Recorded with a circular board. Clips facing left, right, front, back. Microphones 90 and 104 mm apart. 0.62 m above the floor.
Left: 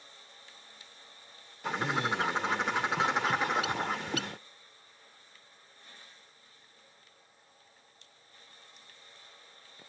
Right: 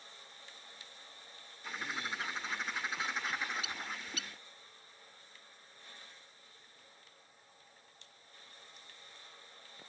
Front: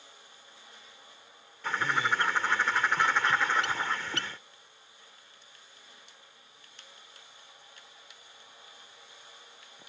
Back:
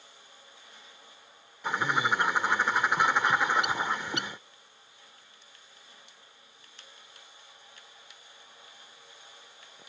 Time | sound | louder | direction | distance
1.6 | a bird | left 10 dB, back 2 dB | 105° left | ?